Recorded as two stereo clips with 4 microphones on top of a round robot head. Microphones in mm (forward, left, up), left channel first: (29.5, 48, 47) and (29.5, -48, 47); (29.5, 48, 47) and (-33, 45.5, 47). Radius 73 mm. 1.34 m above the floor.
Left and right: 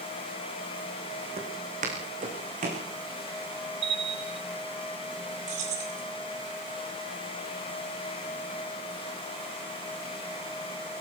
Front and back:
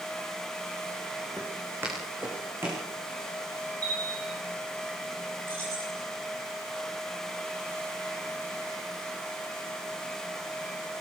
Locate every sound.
1.4 s footsteps: 105° right, 5 m; by 2.9 s 110° right, 6.5 m
3.8 s a bell: 135° right, 1.9 m
5.5 s keys jangling: 110° right, 5.5 m